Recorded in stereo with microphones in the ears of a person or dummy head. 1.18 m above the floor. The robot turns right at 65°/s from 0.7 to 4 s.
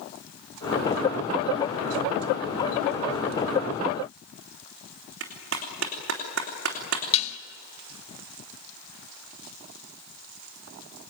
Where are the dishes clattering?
35° left (ahead or behind), 1.9 m.